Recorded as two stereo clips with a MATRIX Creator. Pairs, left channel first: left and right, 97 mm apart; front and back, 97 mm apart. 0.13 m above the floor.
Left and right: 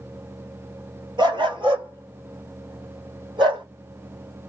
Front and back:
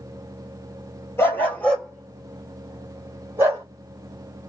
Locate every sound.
1.2 s a dog barking: 60° right, 1.2 m; by 3.6 s 120° right, 1.7 m